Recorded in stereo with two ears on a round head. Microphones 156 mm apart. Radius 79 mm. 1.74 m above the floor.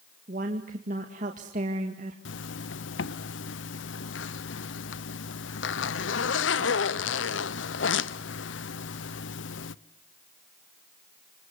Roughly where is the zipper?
Left.